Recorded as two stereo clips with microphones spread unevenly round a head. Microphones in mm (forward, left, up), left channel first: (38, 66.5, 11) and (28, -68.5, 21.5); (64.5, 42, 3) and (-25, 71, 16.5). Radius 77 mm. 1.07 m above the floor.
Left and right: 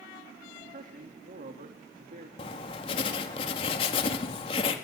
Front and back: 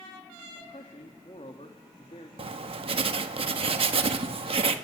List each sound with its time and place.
0.6 s a man speaking: 65° right, 2 m
2.4 s writing: 140° left, 1.7 m